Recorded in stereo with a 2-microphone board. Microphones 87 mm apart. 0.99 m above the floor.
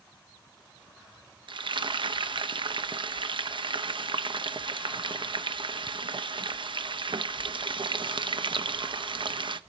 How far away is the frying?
About 0.5 m.